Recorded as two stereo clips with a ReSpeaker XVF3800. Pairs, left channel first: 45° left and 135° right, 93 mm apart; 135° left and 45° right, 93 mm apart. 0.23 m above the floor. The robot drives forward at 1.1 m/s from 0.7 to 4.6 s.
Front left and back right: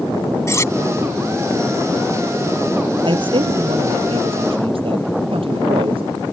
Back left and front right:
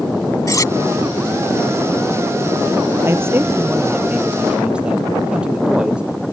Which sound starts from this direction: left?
Cutlery clinking, at 0.5 s.